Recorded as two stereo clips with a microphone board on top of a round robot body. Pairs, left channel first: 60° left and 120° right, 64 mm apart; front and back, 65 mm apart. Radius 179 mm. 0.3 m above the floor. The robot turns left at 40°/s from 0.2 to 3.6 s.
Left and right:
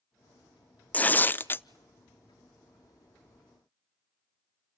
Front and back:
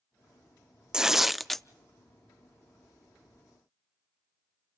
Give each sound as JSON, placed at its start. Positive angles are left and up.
{"t": 0.9, "sound": "tearing paper", "azimuth_deg": 110, "distance_m": 0.6}